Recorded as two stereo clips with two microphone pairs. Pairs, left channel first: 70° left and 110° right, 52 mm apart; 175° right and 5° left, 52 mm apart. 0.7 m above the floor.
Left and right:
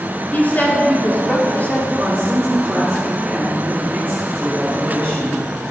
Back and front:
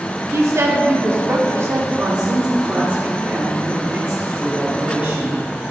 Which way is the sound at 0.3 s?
15° left.